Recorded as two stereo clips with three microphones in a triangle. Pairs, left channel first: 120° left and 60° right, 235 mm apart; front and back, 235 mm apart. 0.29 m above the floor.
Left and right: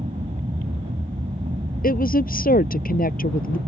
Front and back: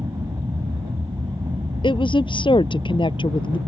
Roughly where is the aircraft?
Right.